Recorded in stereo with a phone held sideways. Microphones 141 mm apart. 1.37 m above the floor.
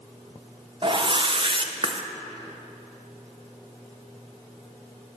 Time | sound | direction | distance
0.8 | a whoosh | 40° right (ahead or behind) | 0.7 m